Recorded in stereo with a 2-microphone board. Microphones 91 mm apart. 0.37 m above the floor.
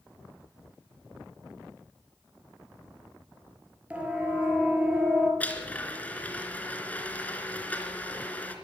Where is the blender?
15° left (ahead or behind), 3 m.